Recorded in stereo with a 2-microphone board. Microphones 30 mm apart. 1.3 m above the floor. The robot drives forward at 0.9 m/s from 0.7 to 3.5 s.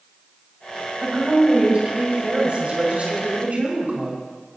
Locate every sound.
1.0 s a woman speaking: 35° right (ahead or behind), 6 m; by 4.2 s 50° right (ahead or behind), 4.5 m